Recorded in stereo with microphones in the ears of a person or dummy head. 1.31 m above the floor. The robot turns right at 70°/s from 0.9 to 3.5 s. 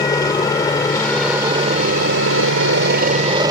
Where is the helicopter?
165° left; by 3.5 s 15° right.